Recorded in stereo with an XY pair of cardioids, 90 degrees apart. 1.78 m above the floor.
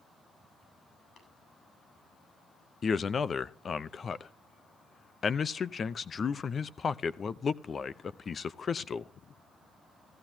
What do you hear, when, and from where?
1.2 s tapping: 60° left, 8.5 m
2.8 s a man speaking: 45° left, 0.8 m